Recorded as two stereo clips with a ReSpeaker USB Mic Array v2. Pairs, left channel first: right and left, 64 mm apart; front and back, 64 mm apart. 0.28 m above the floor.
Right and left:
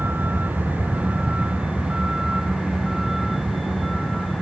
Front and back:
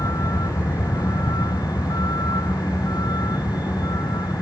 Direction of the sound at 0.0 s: 30° left.